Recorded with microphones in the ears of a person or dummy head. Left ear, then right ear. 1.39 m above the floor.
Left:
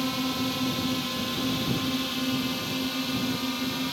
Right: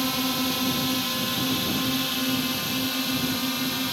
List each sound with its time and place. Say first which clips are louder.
0.0 s a drone: right 3 dB; 15° right (ahead or behind)